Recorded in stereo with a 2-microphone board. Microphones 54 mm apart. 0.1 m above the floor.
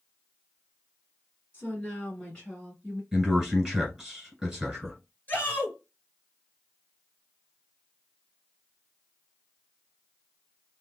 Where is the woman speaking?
25° left (ahead or behind), 1.9 m; by 3.0 s 5° left (ahead or behind), 1.7 m.